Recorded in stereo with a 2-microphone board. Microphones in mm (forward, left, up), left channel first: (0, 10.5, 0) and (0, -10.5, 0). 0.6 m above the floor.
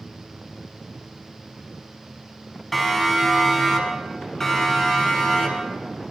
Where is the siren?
5° left (ahead or behind), 6 m; by 5.8 s 20° left (ahead or behind), 9 m.